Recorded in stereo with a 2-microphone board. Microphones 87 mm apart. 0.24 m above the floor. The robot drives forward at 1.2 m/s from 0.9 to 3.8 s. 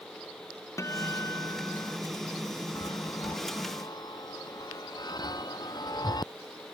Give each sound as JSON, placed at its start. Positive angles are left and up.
{"t": 0.8, "sound": "a guitar", "side_deg": 35}
{"t": 2.8, "sound": "a chime", "side_deg": 45}